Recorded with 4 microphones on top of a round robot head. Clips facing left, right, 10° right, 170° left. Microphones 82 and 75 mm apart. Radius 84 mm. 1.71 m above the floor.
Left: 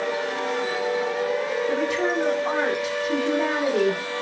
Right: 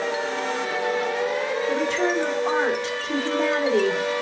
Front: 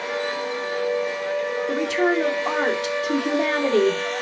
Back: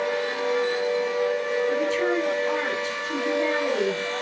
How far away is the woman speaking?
About 2.5 m.